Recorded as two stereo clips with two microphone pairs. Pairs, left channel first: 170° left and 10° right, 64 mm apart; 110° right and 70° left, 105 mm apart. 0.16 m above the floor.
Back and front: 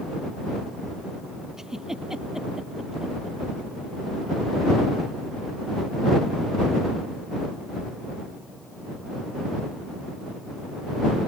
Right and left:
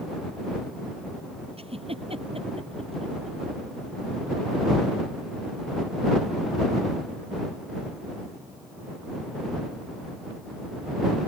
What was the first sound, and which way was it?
A giggle, 70° left.